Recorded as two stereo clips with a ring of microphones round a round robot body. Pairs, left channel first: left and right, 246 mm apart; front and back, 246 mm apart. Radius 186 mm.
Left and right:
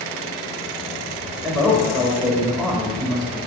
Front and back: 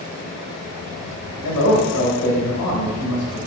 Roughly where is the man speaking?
Ahead.